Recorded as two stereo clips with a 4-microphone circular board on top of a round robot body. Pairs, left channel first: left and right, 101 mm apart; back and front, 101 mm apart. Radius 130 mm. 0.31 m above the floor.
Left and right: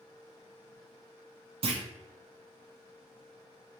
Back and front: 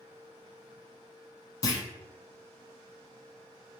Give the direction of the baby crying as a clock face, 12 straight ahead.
I don't hear a baby crying.